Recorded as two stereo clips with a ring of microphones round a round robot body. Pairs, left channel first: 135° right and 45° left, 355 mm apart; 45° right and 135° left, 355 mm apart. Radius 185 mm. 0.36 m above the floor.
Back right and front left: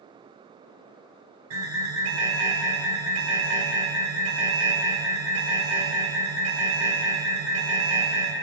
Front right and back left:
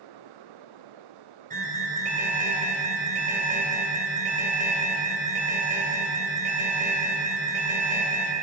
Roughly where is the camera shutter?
No camera shutter in this recording.